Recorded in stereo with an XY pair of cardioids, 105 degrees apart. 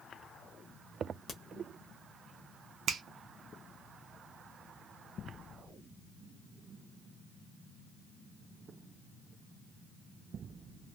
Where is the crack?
30° left, 0.9 m.